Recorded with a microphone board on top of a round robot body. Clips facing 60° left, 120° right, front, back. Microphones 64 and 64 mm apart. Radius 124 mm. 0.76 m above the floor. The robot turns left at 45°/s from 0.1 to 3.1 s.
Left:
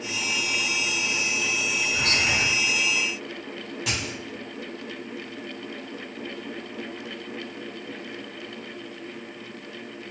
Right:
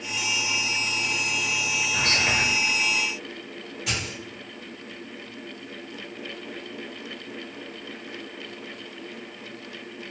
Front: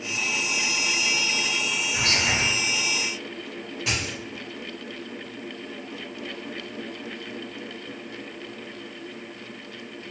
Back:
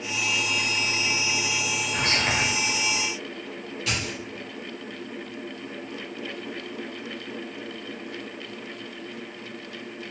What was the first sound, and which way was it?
Whispering, 130° right.